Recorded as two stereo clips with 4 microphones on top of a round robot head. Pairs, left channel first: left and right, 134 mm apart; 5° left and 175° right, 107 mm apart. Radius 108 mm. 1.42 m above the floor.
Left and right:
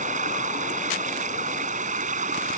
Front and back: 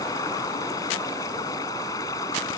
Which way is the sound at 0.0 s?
60° right.